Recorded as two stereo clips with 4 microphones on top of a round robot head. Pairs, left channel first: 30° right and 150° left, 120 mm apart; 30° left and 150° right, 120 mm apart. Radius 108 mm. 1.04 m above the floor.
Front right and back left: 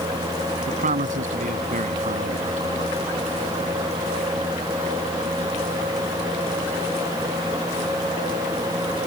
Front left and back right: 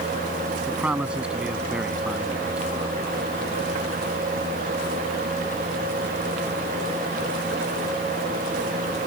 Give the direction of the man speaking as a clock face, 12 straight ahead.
8 o'clock.